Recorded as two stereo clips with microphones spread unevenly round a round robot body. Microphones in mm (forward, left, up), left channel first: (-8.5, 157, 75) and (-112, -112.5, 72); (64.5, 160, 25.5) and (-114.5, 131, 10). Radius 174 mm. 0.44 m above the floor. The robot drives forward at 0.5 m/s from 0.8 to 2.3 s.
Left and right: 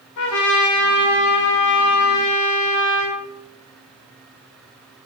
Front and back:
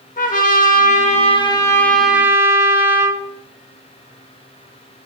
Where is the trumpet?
55° left, 0.9 m; by 3.2 s 115° left, 0.8 m.